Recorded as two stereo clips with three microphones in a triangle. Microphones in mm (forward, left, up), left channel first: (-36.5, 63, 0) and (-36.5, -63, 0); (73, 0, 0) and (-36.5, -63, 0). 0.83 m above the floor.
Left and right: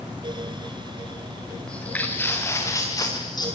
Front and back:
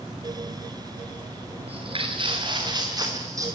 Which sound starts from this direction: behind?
Footsteps, at 1.7 s.